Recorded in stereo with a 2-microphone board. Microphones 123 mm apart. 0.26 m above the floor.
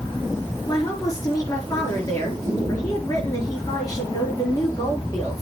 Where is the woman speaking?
30° left (ahead or behind), 4 m.